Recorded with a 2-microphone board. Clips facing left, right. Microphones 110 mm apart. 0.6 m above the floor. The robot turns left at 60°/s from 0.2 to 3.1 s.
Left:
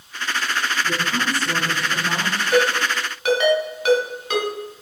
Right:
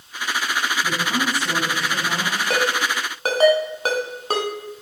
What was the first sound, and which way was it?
A woman speaking, 120° right.